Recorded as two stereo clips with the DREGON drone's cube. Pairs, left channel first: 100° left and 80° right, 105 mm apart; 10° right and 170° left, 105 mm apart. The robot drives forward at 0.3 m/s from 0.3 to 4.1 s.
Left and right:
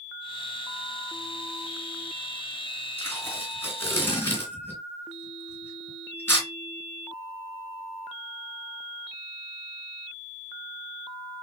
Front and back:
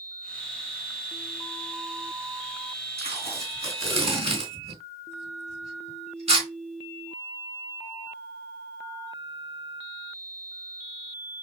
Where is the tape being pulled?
165° left, 3.5 m; by 6.5 s 170° left, 3.5 m.